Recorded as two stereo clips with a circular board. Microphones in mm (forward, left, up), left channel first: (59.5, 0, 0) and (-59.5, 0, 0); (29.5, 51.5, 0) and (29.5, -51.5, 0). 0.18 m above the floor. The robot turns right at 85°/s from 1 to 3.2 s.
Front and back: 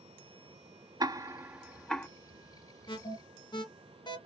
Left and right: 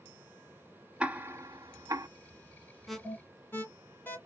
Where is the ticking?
160° right, 0.5 m; by 2.1 s 65° right, 0.5 m.